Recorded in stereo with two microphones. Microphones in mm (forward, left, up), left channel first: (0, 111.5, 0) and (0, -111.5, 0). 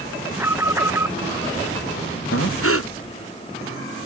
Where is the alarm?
10° right (ahead or behind).